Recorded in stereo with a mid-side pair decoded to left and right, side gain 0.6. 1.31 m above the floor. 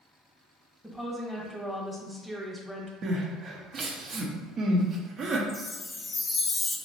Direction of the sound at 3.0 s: 45° right.